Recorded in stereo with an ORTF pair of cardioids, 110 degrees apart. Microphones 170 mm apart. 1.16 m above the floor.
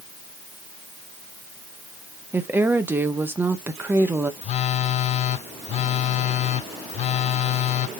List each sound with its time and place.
2.3 s a woman speaking: 10° right, 0.9 m
4.4 s a phone buzzing: 40° left, 0.7 m